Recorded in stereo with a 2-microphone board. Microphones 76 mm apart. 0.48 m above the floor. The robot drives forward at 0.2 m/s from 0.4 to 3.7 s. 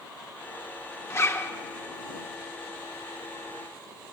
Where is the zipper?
35° left (ahead or behind), 1.0 m.